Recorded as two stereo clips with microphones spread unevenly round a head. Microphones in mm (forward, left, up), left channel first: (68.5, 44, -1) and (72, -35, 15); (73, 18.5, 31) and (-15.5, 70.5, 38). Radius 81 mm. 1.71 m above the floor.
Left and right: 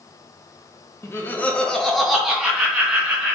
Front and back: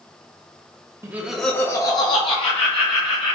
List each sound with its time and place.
1.0 s laughter: 140° left, 0.5 m; by 3.4 s 20° right, 1.2 m